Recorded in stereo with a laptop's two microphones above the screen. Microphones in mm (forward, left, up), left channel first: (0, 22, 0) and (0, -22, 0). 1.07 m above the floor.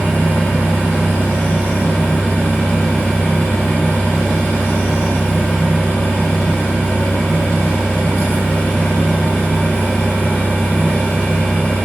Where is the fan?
60° left (ahead or behind), 1.1 m.